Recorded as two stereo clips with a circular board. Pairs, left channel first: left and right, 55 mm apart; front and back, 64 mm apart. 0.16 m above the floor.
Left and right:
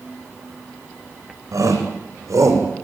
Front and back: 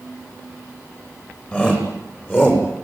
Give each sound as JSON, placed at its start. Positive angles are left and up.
{"t": 1.5, "sound": "a shout", "azimuth_deg": -65, "distance_m": 9.5}